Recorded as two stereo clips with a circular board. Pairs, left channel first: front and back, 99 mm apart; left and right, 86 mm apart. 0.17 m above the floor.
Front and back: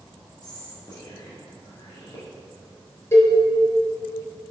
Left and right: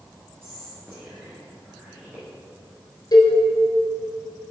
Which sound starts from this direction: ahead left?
A cowbell, at 3.1 s.